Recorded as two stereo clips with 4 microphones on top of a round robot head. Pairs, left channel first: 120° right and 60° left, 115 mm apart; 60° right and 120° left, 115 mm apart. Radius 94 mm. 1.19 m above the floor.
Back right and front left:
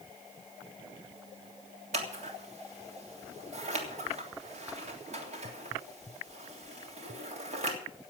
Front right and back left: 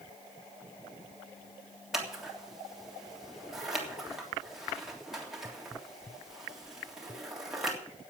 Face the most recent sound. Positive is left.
turn(degrees=35)